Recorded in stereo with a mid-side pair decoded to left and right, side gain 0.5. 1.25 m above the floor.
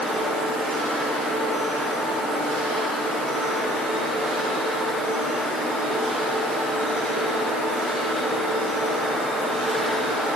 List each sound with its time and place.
Only background noise.